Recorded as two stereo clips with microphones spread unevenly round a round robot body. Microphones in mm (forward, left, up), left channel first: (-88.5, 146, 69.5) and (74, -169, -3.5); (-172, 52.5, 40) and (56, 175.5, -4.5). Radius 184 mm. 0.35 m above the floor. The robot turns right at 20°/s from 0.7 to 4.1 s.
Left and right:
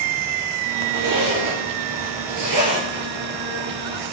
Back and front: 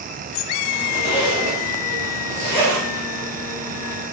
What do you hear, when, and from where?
0.9 s a zipper: 100° right, 3.5 m; by 3.0 s 60° right, 3.5 m